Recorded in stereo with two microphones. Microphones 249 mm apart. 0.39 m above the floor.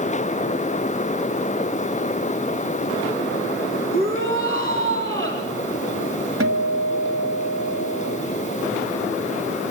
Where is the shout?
55° right (ahead or behind), 4 m.